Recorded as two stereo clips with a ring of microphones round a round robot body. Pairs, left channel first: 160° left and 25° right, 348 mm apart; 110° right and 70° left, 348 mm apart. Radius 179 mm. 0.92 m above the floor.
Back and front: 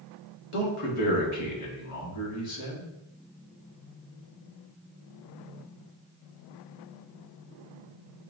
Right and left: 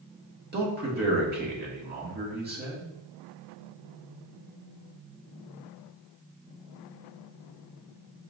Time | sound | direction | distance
0.5 | a man speaking | 125° left | 1.6 m